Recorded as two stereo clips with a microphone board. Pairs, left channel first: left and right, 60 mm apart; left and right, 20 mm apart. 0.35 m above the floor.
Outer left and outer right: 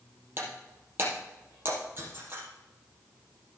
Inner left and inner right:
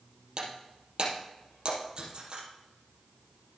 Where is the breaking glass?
40° right (ahead or behind), 4 m.